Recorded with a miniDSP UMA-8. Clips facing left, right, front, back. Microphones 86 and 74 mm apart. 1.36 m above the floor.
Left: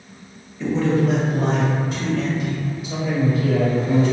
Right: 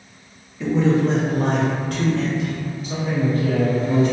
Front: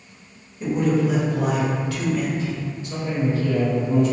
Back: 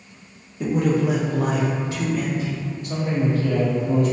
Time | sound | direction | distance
0.6 | a man speaking | straight behind | 0.6 m
2.8 | a man speaking | 140° right | 0.9 m